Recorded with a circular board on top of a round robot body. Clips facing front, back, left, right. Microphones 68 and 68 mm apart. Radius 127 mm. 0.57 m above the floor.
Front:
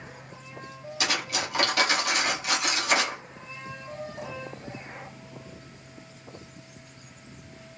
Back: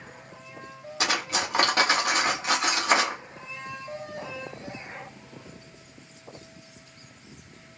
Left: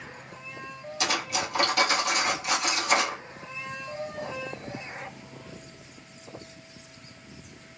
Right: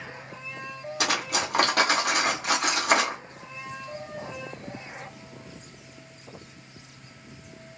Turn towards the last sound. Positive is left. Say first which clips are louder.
# back 2 dB, right 1 dB
turn(degrees=-125)